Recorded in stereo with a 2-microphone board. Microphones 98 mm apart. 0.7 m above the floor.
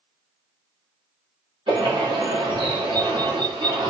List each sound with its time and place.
1.7 s a bird: 55° right (ahead or behind), 1.7 m